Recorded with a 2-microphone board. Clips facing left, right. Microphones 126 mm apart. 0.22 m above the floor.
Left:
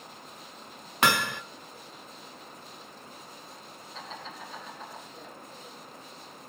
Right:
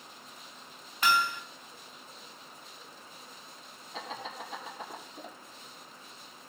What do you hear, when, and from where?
1.0 s hammering: 70° left (ahead or behind), 0.5 m
3.9 s laughter: 75° right (ahead or behind), 7.5 m